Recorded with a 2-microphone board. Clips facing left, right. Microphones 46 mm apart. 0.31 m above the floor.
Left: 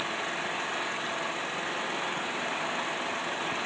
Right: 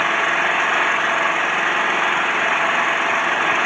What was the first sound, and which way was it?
An engine running, 60° right (ahead or behind).